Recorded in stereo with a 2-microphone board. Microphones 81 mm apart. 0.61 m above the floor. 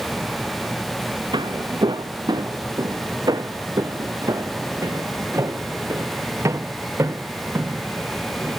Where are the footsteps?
70° right (ahead or behind); by 8.6 s 30° right (ahead or behind).